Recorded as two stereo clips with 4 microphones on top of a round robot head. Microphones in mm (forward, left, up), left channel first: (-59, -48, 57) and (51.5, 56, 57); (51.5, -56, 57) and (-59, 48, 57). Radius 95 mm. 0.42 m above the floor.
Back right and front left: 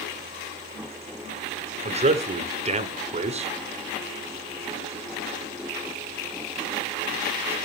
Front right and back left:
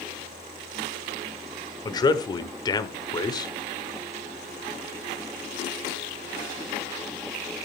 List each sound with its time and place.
1.9 s a man speaking: 15° left, 1.4 m